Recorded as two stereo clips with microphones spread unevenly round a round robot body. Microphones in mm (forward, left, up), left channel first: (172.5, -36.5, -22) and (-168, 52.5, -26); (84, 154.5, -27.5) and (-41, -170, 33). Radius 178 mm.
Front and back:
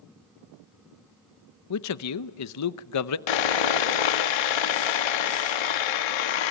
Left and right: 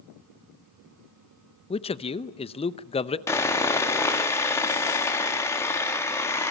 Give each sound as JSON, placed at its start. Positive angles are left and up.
{"t": 1.7, "sound": "a man speaking", "azimuth_deg": 10, "distance_m": 0.7}
{"t": 3.3, "sound": "sawing", "azimuth_deg": -10, "distance_m": 1.6}